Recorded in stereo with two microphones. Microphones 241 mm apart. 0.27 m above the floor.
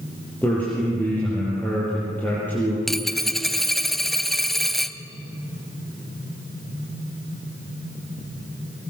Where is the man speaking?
5° left (ahead or behind), 7.5 m.